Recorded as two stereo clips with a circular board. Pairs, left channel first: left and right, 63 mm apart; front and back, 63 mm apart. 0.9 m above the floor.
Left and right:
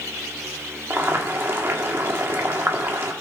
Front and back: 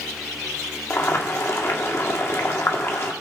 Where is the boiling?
40° right, 1.3 m.